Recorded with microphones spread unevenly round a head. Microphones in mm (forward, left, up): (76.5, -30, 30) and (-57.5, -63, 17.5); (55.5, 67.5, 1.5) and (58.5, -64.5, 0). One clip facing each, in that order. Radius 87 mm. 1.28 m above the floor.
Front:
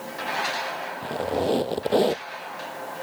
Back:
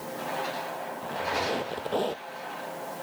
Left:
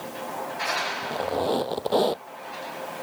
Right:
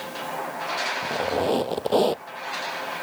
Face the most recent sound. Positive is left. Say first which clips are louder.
# front 6 dB, right 2 dB
turn(degrees=-10)